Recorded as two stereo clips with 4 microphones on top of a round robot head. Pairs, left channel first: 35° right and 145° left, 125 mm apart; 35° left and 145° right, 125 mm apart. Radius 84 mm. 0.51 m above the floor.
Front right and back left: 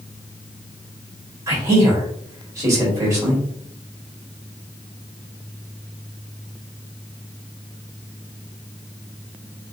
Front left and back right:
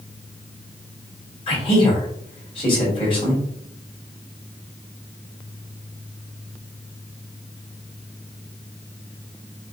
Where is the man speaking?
80° left, 2 m.